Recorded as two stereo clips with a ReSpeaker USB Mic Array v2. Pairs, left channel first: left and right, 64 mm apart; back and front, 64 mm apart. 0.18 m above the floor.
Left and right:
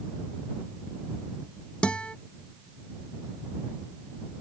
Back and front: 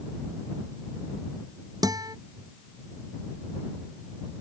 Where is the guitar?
15° left.